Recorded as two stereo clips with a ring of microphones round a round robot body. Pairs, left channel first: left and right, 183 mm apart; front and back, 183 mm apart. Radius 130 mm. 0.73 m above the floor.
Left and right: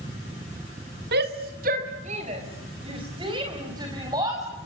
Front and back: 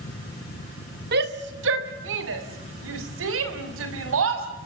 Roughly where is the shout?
Behind right.